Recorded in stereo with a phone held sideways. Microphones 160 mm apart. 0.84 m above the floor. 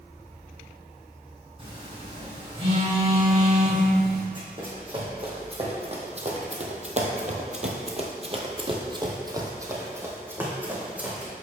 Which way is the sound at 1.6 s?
35° right (ahead or behind).